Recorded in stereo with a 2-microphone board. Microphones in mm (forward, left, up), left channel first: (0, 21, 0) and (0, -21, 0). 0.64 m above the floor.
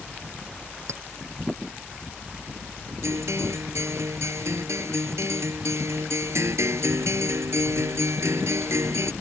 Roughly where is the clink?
Right.